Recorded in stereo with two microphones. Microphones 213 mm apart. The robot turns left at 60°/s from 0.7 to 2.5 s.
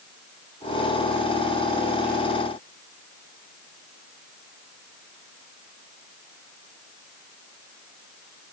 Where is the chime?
I don't hear a chime.